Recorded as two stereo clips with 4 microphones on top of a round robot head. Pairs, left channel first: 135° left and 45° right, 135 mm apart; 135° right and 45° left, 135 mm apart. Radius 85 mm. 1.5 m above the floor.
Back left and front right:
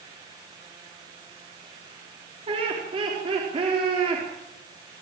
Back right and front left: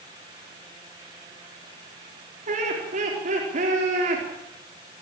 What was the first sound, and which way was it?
Laughter, 10° left.